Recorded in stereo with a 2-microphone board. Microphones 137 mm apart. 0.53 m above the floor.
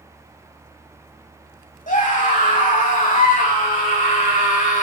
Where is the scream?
65° left (ahead or behind), 3.5 m.